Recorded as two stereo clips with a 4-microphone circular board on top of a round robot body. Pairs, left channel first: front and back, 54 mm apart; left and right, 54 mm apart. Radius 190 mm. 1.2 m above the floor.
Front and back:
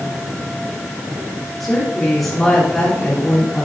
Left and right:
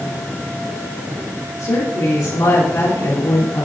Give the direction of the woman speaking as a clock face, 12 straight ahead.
9 o'clock.